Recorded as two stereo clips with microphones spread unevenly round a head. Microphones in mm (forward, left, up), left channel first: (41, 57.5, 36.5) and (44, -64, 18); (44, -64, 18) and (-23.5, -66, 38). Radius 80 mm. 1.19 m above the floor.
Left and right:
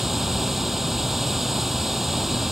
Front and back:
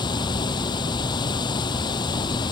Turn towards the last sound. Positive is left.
turn(degrees=0)